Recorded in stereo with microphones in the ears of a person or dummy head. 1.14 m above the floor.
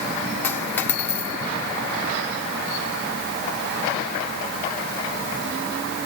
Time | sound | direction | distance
0.4 | a dropped coin | 15° left (ahead or behind) | 1.1 m